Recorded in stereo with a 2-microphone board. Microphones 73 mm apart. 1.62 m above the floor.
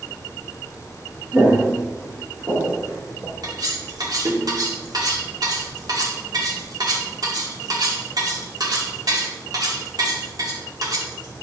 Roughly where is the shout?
No shout in this recording.